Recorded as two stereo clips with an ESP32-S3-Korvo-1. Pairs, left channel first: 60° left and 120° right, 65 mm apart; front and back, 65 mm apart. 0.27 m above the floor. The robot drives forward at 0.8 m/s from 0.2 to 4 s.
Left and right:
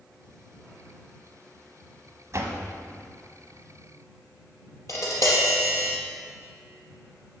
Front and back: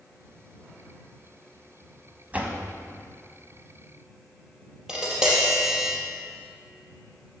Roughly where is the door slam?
Behind right.